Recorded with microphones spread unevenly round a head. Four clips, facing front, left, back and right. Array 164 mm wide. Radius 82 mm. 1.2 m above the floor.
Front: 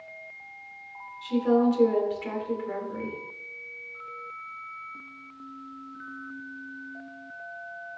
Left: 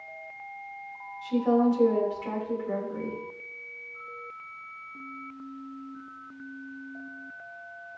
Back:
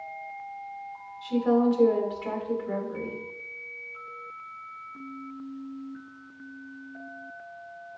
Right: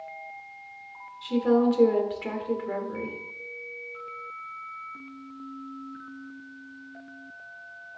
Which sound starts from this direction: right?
A woman speaking, at 1.2 s.